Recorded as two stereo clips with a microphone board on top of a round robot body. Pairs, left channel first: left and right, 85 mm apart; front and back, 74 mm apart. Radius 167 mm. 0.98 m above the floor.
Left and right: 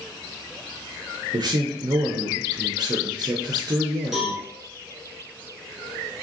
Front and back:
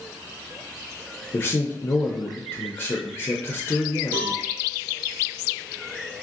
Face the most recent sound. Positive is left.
turn(degrees=-175)